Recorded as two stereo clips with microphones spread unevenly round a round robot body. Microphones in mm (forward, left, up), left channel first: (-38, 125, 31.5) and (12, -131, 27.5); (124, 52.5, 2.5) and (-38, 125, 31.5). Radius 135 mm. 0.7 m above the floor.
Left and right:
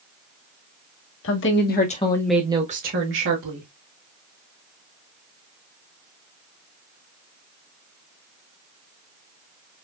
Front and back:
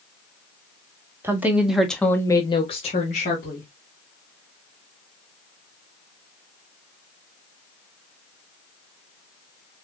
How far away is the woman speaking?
About 1.8 m.